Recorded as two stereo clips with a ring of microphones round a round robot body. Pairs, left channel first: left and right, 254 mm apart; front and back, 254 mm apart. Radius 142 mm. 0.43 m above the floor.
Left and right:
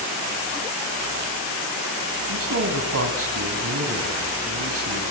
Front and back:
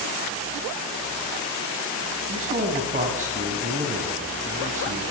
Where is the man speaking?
115° right, 3 m.